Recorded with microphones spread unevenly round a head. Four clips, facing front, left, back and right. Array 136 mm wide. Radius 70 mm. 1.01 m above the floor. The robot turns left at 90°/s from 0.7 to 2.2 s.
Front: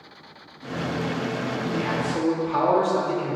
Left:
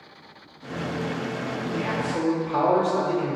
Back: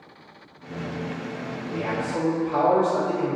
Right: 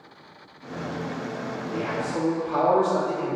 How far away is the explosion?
No explosion in this recording.